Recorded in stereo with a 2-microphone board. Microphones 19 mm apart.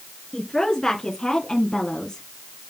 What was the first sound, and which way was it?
A woman speaking, 25° left (ahead or behind).